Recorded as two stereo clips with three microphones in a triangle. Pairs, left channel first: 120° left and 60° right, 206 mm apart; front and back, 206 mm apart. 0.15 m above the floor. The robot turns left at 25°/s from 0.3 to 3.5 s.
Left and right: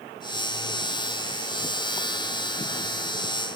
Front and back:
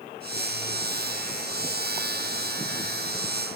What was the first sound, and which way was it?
Only background noise.